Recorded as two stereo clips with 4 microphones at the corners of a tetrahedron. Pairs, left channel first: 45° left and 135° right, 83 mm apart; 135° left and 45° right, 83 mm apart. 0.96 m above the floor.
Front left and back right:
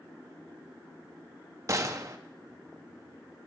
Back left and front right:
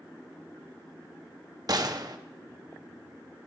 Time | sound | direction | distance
1.7 | a gunshot | 85° right | 0.7 m